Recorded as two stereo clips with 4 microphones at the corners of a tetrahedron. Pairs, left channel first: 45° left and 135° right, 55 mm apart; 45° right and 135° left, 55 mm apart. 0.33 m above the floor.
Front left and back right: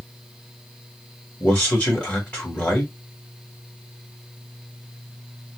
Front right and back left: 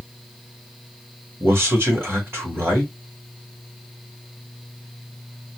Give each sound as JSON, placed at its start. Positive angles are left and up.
{"t": 1.4, "sound": "a man speaking", "azimuth_deg": 100, "distance_m": 2.0}